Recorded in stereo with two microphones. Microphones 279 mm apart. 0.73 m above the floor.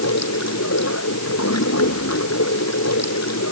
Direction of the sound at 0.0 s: 60° left (ahead or behind).